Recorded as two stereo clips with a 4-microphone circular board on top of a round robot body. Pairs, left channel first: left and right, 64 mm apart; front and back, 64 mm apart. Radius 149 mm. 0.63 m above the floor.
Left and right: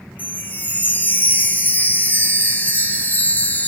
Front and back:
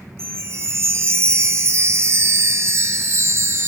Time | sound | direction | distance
0.2 | a chime | 145° left | 0.7 m